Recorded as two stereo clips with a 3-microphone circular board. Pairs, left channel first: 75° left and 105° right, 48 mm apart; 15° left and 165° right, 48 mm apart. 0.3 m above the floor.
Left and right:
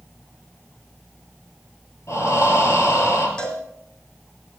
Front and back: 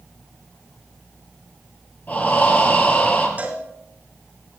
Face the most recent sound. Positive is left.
turn(degrees=140)